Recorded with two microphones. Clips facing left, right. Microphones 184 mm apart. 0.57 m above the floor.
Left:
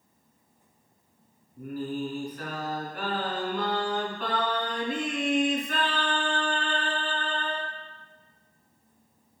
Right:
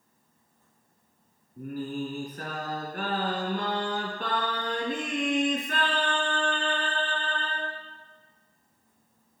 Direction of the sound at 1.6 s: 50° right (ahead or behind).